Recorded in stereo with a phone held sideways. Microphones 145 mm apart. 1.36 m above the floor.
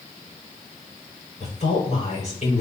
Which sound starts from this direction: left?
A woman speaking, at 1.4 s.